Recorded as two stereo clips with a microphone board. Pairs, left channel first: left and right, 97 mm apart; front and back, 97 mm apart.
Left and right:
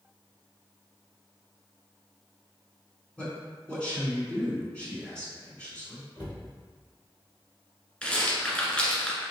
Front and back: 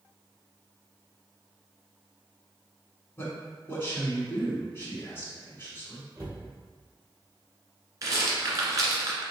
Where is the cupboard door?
125° left, 1.8 m.